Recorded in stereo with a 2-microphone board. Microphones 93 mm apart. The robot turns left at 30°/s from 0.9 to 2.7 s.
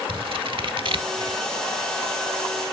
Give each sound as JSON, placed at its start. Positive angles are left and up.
{"t": 0.1, "sound": "scissors", "side_deg": -60, "distance_m": 0.6}